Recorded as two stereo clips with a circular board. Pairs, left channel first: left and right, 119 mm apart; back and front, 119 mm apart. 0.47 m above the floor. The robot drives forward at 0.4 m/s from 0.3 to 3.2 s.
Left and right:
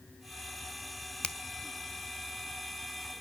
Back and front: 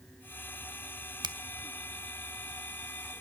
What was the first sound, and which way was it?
A finger snap, 15° left.